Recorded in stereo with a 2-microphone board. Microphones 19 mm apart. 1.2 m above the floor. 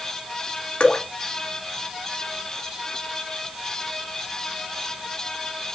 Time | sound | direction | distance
0.8 | dripping | 60° left (ahead or behind) | 2 m